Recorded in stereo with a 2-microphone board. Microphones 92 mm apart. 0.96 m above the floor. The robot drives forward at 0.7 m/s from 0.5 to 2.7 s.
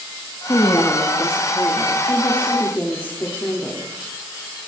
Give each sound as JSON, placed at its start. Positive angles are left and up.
{"t": 0.5, "sound": "a woman speaking", "side_deg": 50, "distance_m": 1.5}